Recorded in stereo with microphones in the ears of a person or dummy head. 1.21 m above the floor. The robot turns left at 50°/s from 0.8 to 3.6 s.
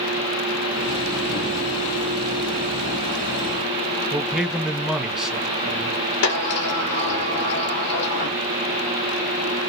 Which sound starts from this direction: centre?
A man speaking, at 4.1 s.